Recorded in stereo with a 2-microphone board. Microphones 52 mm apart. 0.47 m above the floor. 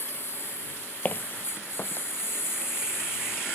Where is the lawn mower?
45° left (ahead or behind); by 3.6 s 55° left (ahead or behind).